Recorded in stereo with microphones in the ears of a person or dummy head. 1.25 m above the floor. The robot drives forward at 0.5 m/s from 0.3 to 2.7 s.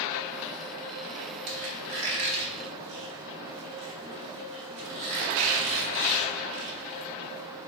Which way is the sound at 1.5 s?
35° right (ahead or behind).